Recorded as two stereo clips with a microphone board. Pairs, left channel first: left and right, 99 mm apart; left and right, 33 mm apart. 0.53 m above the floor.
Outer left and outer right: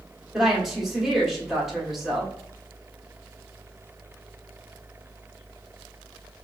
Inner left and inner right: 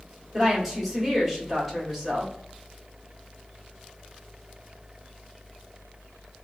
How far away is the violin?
No violin in this recording.